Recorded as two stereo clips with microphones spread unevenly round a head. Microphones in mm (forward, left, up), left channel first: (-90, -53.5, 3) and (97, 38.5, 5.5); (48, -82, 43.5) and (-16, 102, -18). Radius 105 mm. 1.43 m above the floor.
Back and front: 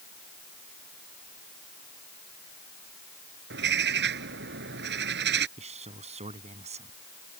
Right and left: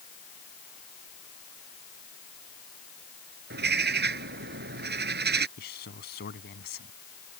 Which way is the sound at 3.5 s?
70° left.